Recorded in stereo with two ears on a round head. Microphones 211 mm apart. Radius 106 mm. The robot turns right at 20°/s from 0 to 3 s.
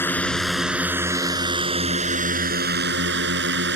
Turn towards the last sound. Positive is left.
turn(degrees=-130)